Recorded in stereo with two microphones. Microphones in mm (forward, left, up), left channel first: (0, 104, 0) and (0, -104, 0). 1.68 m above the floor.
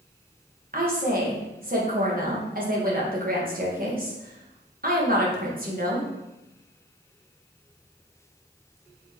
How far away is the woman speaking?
About 1.2 m.